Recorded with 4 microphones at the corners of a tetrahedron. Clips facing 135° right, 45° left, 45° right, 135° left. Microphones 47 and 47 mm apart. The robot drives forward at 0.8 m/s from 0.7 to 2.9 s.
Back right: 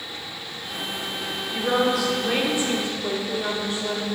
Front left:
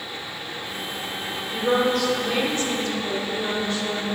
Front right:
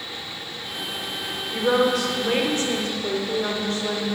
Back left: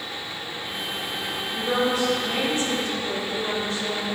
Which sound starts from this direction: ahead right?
A woman speaking, at 1.5 s.